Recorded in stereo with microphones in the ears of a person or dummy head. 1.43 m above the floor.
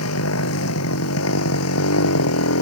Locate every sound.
0.0 s a motorcycle: 85° left